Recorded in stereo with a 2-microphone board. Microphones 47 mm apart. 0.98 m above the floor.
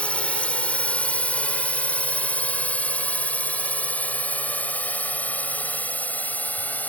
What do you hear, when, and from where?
0.0 s a drone: 25° left (ahead or behind); by 6.9 s 35° left (ahead or behind)